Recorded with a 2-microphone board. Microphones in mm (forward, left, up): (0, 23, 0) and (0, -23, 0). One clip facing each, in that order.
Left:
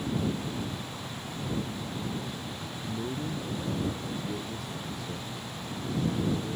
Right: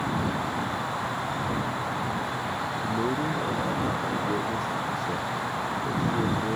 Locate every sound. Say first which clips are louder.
0.0 s an insect: right 4 dB; 65° right (ahead or behind)
2.8 s a man speaking: right 6 dB; 55° right (ahead or behind)